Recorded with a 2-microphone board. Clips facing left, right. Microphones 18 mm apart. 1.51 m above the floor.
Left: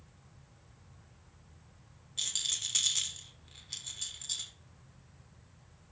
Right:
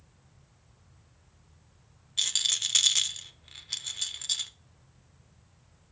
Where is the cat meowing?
I don't hear a cat meowing.